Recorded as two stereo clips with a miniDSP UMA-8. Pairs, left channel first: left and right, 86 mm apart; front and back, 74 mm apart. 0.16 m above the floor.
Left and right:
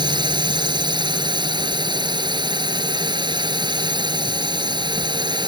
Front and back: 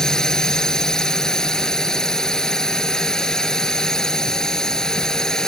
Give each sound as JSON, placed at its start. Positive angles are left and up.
{"t": 0.0, "sound": "a drone", "azimuth_deg": -80}